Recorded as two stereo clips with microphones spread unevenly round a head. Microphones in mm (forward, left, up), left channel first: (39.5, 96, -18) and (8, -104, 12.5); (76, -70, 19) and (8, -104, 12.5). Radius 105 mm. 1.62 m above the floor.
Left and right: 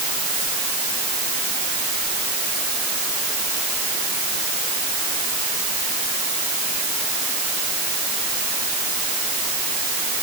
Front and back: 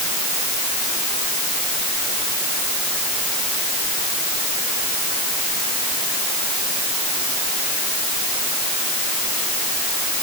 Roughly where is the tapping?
No tapping in this recording.